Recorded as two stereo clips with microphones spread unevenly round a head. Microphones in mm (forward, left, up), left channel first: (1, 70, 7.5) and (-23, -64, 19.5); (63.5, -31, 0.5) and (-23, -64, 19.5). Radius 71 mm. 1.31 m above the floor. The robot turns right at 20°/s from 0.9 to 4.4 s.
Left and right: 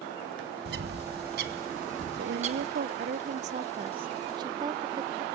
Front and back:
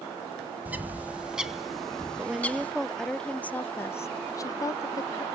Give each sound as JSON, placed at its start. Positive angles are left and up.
{"t": 0.7, "sound": "a bird", "azimuth_deg": -85, "distance_m": 1.6}
{"t": 2.2, "sound": "a woman speaking", "azimuth_deg": -80, "distance_m": 0.5}